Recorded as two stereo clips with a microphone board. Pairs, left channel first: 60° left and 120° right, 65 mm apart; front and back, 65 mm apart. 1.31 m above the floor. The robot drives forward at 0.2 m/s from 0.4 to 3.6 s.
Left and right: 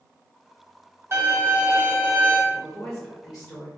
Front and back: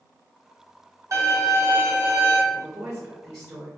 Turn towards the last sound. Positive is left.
turn(degrees=145)